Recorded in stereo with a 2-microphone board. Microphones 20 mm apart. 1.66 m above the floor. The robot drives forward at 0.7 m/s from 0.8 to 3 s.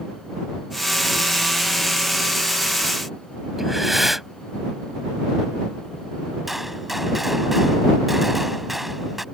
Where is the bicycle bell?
No bicycle bell in this recording.